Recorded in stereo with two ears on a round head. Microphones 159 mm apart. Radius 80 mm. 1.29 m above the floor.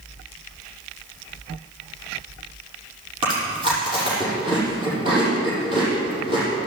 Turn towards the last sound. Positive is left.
turn(degrees=-30)  # may be behind; listen again after turning